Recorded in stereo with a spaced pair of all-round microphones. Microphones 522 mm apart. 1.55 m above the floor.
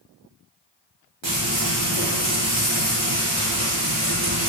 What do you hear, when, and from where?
1.2 s frying: 60° right (ahead or behind), 1.2 m